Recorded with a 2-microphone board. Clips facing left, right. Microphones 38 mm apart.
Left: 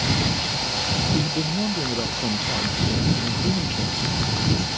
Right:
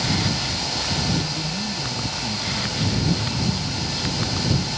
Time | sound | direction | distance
1.1 | a man speaking | 55° left (ahead or behind) | ?